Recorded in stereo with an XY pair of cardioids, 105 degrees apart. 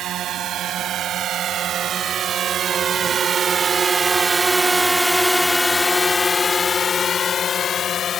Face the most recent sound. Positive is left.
turn(degrees=60)